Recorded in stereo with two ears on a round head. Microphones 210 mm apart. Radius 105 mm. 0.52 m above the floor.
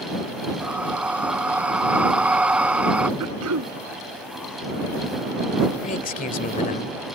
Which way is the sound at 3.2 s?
75° right (ahead or behind).